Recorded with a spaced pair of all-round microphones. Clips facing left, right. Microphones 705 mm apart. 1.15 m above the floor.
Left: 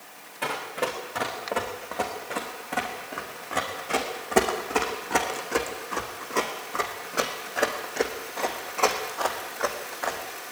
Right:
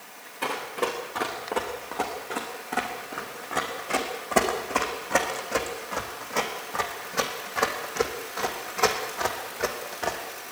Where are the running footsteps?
15° left (ahead or behind), 5 m; by 10.2 s 60° right (ahead or behind), 3 m.